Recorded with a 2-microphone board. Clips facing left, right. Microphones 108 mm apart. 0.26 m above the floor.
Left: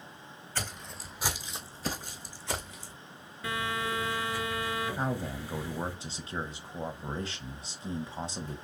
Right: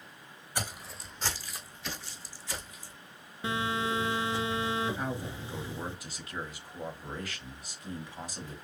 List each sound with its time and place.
0.6 s footsteps: 15° right (ahead or behind), 1.0 m; by 2.9 s 70° left (ahead or behind), 1.4 m
3.4 s a phone buzzing: 25° right (ahead or behind), 0.9 m
5.0 s a man speaking: 25° left (ahead or behind), 1.1 m